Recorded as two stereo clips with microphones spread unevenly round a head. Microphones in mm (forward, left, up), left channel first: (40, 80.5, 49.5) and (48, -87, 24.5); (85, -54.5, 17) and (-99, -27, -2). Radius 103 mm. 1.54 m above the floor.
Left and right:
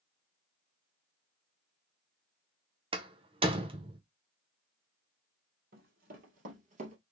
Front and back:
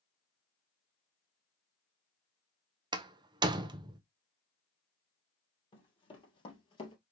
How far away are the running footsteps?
About 2.5 m.